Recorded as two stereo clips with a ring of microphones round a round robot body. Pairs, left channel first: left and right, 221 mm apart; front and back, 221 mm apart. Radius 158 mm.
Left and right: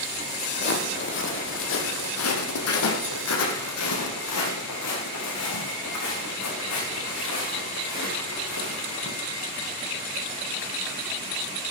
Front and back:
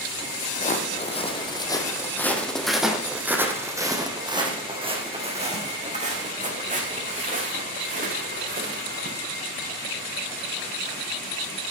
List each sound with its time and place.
0.6 s footsteps: 55° left, 3 m; by 9.1 s 135° left, 7 m